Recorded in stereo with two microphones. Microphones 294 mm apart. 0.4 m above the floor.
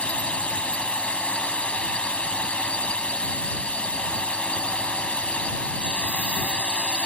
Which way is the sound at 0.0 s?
5° left (ahead or behind).